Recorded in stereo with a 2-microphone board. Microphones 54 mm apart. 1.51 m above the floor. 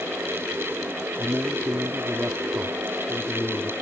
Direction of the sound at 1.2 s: 35° right (ahead or behind).